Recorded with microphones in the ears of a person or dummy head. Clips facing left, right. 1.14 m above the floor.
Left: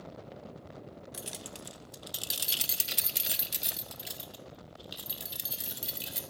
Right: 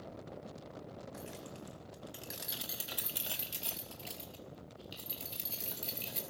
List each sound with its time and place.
1.1 s keys jangling: 40° left (ahead or behind), 0.6 m; by 6.2 s 10° left (ahead or behind), 3 m